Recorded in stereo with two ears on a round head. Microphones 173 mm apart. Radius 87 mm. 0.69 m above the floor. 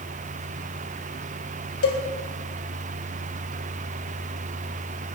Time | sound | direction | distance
1.8 | a cowbell | 80° left | 1.7 m